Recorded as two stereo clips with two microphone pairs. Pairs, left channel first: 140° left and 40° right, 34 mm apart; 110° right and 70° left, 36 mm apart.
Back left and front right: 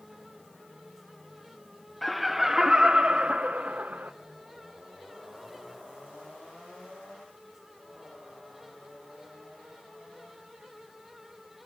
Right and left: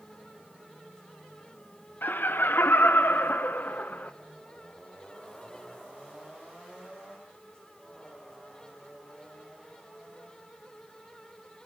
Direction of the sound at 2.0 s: 130° right.